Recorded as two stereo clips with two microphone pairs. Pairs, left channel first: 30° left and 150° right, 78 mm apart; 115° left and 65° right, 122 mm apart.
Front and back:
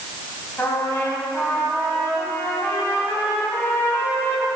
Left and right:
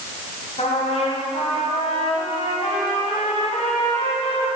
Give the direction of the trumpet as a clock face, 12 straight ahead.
9 o'clock.